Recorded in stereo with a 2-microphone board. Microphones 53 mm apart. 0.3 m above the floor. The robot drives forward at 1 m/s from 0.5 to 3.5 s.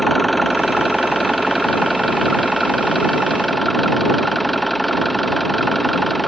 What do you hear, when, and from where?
0.0 s an engine running: centre (ahead or behind)